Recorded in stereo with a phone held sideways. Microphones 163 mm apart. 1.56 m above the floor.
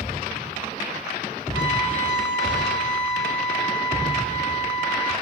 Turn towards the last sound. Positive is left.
turn(degrees=-30)  # may be behind; listen again after turning